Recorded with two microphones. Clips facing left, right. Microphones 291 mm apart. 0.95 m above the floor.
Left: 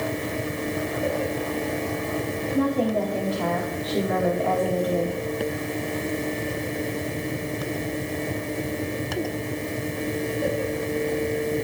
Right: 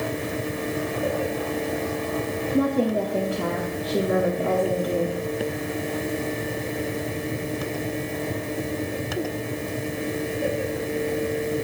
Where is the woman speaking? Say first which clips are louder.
Right 1 dB; 30° right (ahead or behind), 1.3 m.